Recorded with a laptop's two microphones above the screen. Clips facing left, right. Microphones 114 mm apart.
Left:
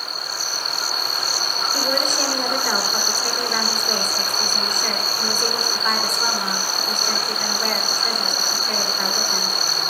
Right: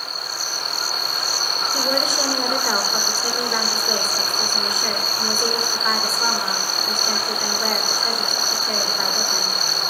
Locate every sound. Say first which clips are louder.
1.7 s a woman speaking: right 1 dB; 5° right (ahead or behind), 3 m